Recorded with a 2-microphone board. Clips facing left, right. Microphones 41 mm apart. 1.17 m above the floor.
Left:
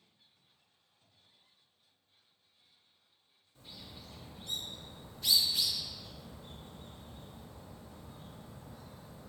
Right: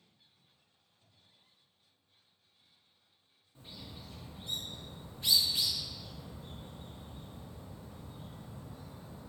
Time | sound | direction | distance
3.5 | a bird | 30° right (ahead or behind) | 0.9 m